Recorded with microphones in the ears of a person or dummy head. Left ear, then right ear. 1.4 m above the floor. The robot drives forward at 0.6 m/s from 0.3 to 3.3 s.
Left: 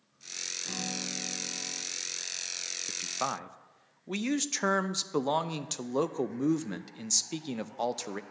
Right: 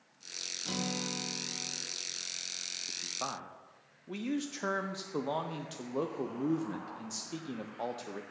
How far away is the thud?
I don't hear a thud.